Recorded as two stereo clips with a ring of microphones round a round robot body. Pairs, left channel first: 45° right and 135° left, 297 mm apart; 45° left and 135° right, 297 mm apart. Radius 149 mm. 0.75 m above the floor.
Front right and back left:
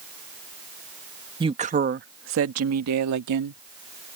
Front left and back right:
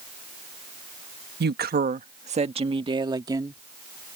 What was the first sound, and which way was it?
A woman speaking, 160° right.